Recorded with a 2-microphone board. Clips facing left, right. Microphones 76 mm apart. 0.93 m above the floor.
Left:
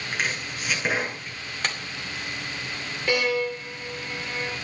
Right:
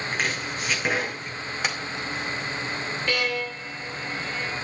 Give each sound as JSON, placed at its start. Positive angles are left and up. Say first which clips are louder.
{"t": 0.1, "sound": "chopping", "louder": "left 1 dB", "side_deg": 0, "distance_m": 8.0}
{"t": 1.6, "sound": "a clap", "louder": "right 1 dB", "side_deg": -5, "distance_m": 2.5}
{"t": 3.1, "sound": "a violin", "louder": "left 5 dB", "side_deg": 20, "distance_m": 5.0}